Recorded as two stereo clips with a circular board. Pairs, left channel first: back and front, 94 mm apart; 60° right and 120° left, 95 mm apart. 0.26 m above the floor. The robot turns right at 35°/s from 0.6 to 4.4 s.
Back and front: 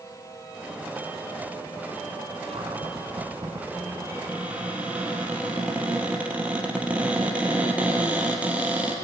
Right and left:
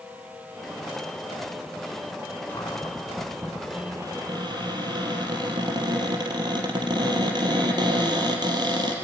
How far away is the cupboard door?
About 4 m.